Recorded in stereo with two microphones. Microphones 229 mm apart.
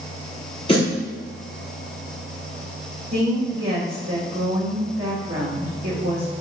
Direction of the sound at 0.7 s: 25° left (ahead or behind).